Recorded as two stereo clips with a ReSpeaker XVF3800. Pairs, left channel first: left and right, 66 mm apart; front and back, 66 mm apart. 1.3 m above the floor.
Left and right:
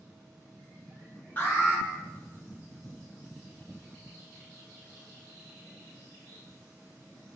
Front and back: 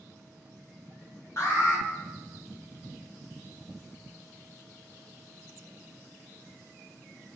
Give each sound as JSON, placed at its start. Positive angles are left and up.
{"t": 1.4, "sound": "an alarm", "azimuth_deg": 30, "distance_m": 1.6}